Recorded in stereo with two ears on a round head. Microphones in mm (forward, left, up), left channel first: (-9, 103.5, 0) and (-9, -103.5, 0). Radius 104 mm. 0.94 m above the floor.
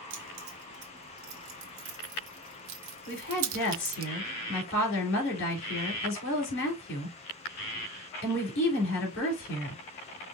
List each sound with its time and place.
0.1 s keys jangling: 80° right, 2.5 m; by 4.1 s 40° right (ahead or behind), 0.6 m
3.1 s a woman speaking: 55° left (ahead or behind), 3.5 m